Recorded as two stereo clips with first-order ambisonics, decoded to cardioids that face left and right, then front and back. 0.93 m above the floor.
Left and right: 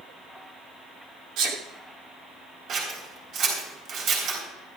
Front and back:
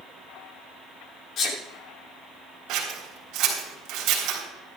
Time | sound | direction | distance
1.4 | a sneeze | 50° right | 2.5 m
2.7 | scissors | 140° right | 4 m